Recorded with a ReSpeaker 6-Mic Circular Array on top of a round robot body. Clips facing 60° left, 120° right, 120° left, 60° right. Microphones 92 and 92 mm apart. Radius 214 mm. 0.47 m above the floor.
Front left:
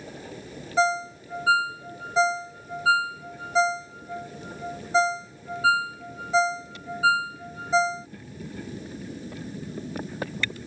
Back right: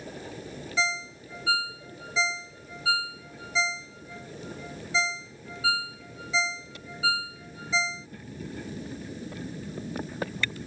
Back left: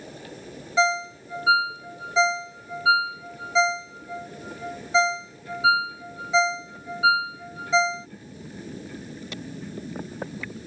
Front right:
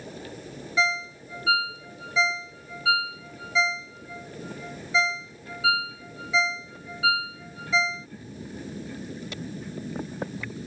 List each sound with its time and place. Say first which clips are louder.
0.8 s a ringtone: front left 9 dB, back left 5 dB; 75° left